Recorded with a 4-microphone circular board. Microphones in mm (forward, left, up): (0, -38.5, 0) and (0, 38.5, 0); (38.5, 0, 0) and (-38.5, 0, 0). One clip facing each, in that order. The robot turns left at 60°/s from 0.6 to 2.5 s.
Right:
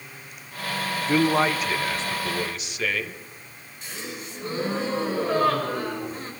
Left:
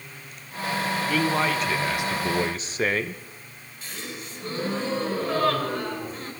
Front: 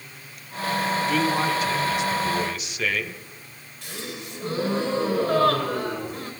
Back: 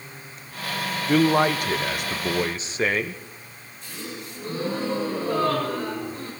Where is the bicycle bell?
I don't hear a bicycle bell.